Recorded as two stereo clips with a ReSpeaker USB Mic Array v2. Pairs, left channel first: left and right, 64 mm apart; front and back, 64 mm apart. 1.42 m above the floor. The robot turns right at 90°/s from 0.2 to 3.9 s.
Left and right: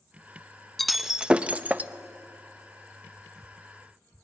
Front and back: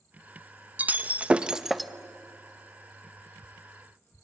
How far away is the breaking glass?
About 0.7 m.